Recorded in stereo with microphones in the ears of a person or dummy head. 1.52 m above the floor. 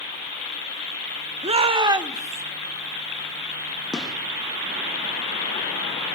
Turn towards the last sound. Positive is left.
turn(degrees=5)  # may be behind; listen again after turning